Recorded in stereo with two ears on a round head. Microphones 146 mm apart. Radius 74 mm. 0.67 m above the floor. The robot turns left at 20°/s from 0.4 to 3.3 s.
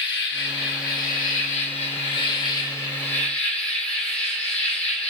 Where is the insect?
65° left, 0.7 m; by 5.1 s 10° left, 0.7 m.